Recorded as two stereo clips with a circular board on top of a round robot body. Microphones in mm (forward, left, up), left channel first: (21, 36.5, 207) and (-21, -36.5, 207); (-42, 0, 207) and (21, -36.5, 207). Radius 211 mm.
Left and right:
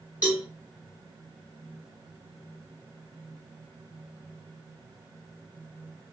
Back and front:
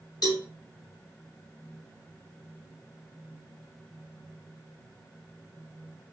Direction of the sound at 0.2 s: 170° left.